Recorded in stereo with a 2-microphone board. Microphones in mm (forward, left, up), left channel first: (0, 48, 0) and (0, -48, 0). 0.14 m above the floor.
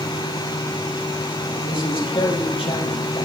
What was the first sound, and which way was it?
A man speaking, 70° left (ahead or behind).